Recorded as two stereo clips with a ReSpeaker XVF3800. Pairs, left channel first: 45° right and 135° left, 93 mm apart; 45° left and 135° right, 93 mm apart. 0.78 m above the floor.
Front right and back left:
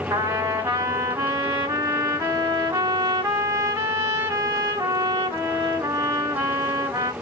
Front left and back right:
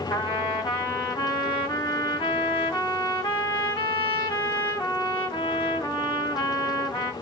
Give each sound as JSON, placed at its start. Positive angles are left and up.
{"t": 0.1, "sound": "a trumpet", "azimuth_deg": 75, "distance_m": 1.9}